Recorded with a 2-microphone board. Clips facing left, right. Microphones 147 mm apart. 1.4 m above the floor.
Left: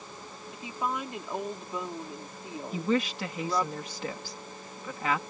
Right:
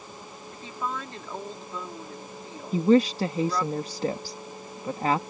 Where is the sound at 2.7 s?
35° right (ahead or behind).